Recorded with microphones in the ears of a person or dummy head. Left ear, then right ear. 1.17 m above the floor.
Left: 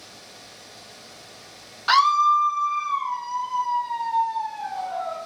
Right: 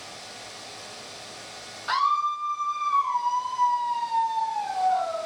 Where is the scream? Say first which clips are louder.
Left 7 dB; 35° left (ahead or behind), 0.5 m; by 5.2 s 40° left (ahead or behind), 2.5 m.